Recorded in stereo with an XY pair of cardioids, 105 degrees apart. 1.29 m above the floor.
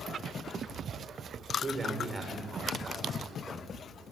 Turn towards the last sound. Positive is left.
turn(degrees=-15)